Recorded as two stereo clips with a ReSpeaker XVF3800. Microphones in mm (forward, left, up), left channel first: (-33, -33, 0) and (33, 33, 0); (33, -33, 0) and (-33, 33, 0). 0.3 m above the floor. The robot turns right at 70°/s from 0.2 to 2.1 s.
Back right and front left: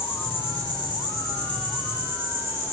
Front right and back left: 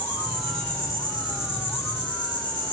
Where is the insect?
150° right, 7.5 m; by 2.7 s 20° right, 7.5 m.